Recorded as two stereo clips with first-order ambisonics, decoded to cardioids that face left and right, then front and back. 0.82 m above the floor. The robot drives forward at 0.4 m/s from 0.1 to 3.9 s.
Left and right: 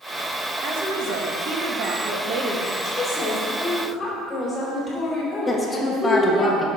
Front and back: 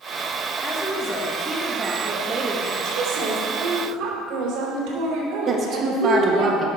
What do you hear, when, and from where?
0.6 s a woman speaking: 75° right, 1.1 m; by 2.7 s 130° right, 1.2 m
2.8 s a woman speaking: 165° left, 2.5 m
5.5 s a woman speaking: 155° left, 0.9 m